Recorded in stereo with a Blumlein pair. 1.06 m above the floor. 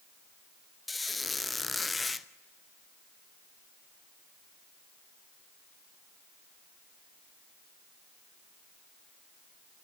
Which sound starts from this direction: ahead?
A squeak, at 0.9 s.